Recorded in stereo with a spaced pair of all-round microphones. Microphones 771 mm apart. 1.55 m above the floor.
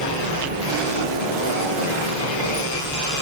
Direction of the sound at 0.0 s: 30° right (ahead or behind).